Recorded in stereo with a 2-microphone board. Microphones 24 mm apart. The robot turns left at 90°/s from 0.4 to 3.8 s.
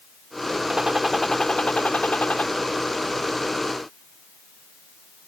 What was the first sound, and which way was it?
A gunshot, 145° right.